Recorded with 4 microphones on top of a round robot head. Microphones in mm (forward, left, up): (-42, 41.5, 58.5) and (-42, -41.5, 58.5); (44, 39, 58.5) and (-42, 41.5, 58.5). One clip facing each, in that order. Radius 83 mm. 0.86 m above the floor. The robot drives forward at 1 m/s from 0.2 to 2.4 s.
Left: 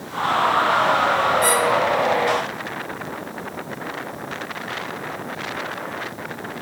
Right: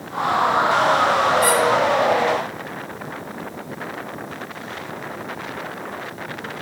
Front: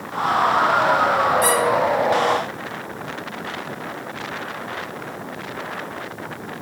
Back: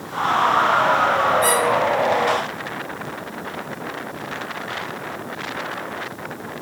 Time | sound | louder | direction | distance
1.4 | a squeak | right 1 dB, even | 10° right | 3 m